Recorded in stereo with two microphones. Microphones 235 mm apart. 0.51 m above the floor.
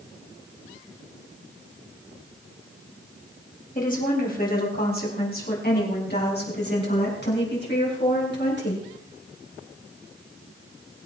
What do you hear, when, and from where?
3.8 s a woman speaking: 35° left (ahead or behind), 4 m; by 8.8 s 50° left (ahead or behind), 7.5 m